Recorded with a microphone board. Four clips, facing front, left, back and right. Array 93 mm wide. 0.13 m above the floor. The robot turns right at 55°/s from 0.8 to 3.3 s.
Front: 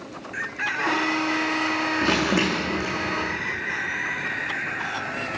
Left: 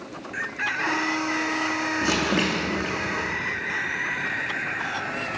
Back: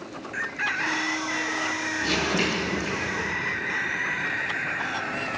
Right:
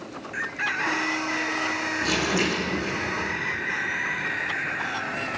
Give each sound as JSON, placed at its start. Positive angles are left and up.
{"t": 2.0, "sound": "crumpling", "azimuth_deg": 20, "distance_m": 3.5}